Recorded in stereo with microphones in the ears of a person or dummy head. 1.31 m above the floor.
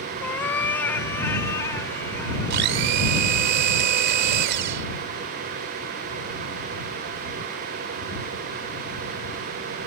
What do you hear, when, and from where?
0.2 s a cat meowing: 10° left (ahead or behind); by 2.6 s 20° left (ahead or behind)
2.5 s a blender: 65° right (ahead or behind)